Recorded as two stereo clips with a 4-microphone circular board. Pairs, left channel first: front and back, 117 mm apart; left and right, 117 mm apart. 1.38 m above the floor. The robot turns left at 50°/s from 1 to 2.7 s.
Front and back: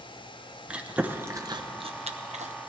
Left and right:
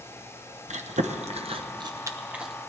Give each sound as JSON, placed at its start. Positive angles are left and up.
{"t": 0.7, "sound": "chewing", "azimuth_deg": -100, "distance_m": 0.8}